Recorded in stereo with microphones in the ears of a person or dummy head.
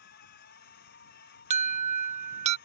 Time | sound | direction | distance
0.0 | a machine running | 60° left (ahead or behind) | ?
1.5 | an alarm | 30° right (ahead or behind) | ?